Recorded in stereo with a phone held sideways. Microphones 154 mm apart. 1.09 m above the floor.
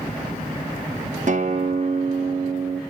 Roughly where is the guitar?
Right.